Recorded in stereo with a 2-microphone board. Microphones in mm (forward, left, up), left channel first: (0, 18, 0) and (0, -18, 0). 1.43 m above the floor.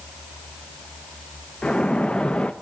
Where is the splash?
30° left (ahead or behind), 0.6 m.